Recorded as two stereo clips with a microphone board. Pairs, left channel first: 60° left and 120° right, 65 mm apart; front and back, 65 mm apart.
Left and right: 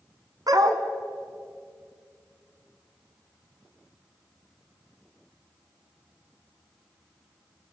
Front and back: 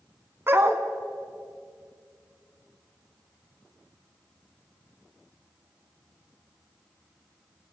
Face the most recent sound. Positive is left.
turn(degrees=-130)